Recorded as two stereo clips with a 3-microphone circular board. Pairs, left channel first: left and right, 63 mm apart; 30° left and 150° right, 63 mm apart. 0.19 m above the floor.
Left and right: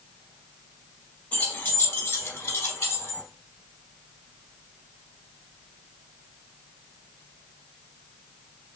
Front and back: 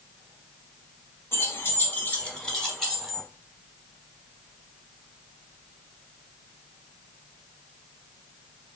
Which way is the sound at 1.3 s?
35° left.